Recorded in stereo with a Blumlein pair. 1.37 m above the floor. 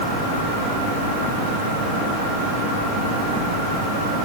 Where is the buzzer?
I don't hear a buzzer.